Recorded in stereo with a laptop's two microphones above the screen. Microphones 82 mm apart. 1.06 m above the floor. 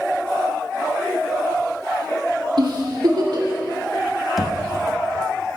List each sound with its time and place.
2.6 s a giggle: 60° right (ahead or behind), 1.7 m
4.4 s knocking: centre (ahead or behind), 0.6 m